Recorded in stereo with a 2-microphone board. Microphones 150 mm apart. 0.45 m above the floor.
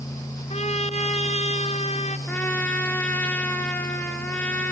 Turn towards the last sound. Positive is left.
turn(degrees=10)  # may be behind; listen again after turning